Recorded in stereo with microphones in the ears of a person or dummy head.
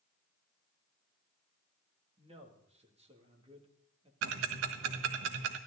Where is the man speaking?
25° right (ahead or behind), 2.5 m.